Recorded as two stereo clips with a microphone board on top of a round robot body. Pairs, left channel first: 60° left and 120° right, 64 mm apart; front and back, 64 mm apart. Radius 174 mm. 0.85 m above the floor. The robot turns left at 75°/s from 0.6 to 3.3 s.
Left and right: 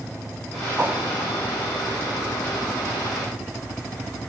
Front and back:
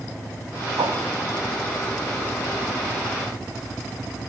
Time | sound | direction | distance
0.8 | a whoosh | straight behind | 0.5 m